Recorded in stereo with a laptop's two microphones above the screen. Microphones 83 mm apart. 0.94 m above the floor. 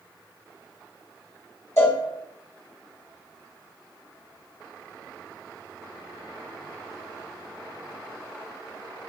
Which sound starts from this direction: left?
A cowbell, at 1.8 s.